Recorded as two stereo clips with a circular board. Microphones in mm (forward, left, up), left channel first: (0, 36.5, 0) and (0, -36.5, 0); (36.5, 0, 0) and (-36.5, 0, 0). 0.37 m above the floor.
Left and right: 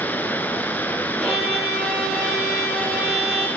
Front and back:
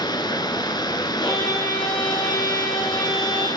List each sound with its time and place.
0.0 s running water: 25° left, 1.3 m
1.2 s a violin: 5° right, 10 m